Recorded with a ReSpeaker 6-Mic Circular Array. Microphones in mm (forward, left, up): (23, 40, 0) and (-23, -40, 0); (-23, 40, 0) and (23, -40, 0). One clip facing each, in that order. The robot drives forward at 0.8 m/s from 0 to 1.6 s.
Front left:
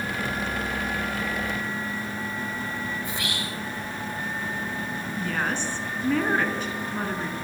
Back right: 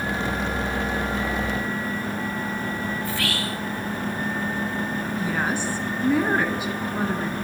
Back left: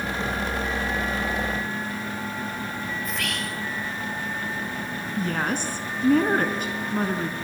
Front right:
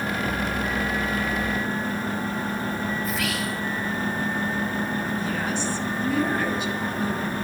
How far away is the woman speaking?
About 3.5 m.